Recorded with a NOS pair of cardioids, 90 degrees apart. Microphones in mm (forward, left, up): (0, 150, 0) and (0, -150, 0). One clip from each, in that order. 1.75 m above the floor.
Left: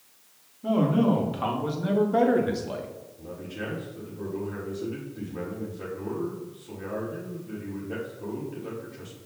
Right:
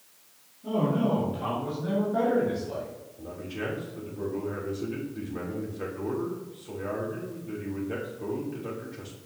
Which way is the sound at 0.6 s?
65° left.